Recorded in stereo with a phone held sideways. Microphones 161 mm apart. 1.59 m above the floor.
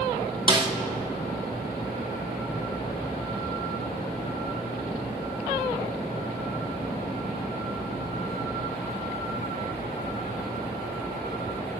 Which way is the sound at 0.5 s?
30° right (ahead or behind).